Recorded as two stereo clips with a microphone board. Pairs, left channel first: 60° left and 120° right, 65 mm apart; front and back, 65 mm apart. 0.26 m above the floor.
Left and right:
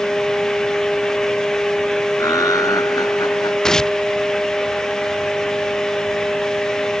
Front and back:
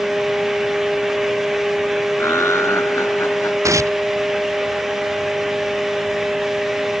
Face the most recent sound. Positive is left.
turn(degrees=140)